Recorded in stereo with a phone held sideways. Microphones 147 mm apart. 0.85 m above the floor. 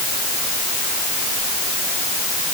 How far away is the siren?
No siren in this recording.